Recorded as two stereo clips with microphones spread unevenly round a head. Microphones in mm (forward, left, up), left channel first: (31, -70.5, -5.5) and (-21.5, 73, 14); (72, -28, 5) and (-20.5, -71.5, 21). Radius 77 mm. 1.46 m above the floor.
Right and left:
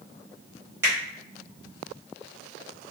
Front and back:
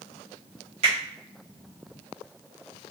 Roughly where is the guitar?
I don't hear a guitar.